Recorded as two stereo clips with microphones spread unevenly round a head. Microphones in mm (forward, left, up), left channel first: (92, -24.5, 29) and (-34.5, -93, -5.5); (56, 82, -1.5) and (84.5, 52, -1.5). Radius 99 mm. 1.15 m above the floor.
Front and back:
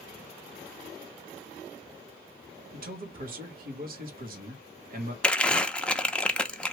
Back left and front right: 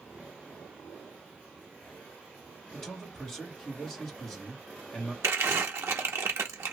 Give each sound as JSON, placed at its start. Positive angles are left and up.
{"t": 2.7, "sound": "a man speaking", "azimuth_deg": -150, "distance_m": 1.4}
{"t": 5.2, "sound": "crumpling", "azimuth_deg": -60, "distance_m": 0.6}